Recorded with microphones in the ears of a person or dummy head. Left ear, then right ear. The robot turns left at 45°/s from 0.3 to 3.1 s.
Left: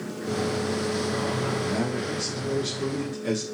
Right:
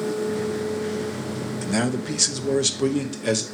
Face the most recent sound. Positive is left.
turn(degrees=-140)